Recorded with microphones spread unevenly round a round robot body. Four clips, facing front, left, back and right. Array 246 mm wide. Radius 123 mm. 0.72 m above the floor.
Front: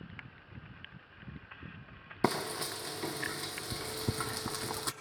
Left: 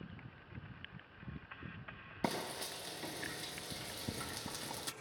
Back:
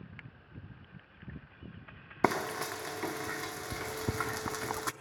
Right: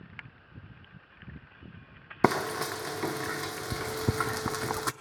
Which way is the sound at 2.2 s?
85° right.